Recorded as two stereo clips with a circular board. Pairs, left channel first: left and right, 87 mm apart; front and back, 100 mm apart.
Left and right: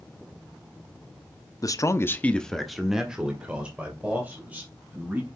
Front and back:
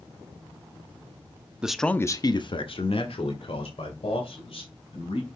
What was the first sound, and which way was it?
A man speaking, 105° left.